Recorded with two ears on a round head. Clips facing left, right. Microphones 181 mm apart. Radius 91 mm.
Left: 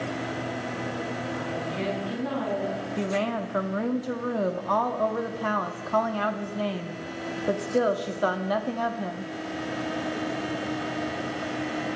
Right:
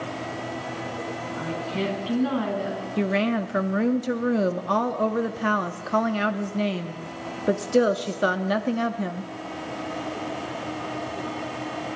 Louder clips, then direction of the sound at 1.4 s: Right 2 dB; 70° right (ahead or behind).